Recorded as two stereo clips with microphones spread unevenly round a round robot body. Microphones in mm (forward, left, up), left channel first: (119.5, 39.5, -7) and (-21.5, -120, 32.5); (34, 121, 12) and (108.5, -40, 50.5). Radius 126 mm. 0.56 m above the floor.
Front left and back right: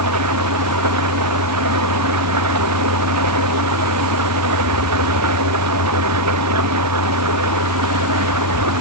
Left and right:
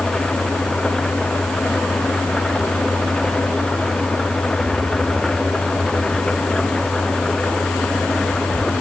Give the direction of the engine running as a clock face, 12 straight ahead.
5 o'clock.